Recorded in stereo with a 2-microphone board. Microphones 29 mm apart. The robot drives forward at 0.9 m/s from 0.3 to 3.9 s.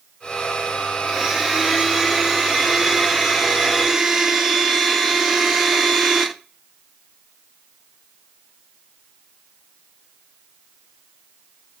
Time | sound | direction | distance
1.0 | a blender | centre (ahead or behind) | 5.5 m